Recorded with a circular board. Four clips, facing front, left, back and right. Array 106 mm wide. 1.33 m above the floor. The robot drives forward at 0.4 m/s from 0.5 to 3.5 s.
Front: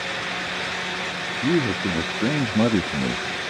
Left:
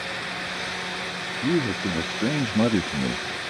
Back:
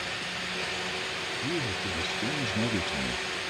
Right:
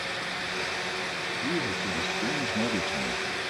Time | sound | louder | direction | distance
1.4 | a man speaking | left 8 dB, front 12 dB | 25° left | ?